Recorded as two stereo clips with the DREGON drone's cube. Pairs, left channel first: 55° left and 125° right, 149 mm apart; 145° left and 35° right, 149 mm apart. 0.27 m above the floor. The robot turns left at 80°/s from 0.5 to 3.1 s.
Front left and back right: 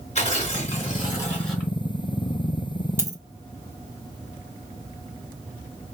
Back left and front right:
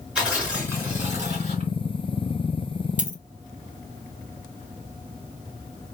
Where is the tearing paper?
45° left, 2.5 m; by 1.7 s 50° right, 2.5 m.